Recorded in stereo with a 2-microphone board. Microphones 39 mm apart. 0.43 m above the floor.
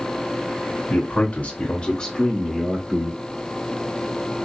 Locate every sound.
0.9 s a man speaking: 50° left (ahead or behind), 2.0 m; by 3.2 s 20° right (ahead or behind), 1.3 m